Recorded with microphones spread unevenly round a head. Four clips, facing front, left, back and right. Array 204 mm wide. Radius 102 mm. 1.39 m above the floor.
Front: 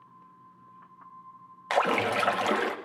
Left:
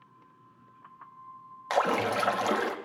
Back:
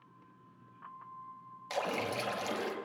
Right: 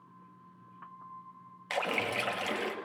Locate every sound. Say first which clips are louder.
1.7 s a splash: left 7 dB, front 10 dB; 35° left, 2.5 m